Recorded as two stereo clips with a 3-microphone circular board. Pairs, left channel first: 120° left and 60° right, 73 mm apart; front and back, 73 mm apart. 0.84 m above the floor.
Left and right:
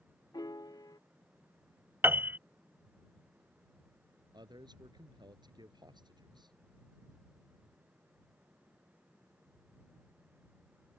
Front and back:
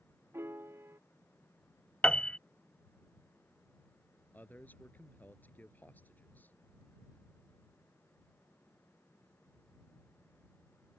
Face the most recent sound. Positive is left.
turn(degrees=-65)